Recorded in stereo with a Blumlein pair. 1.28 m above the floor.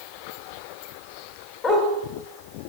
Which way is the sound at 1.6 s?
20° left.